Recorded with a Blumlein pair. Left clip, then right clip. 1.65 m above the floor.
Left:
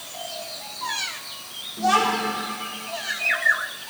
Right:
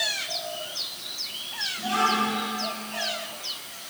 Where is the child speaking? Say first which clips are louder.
Left 4 dB; 35° left, 3.5 m.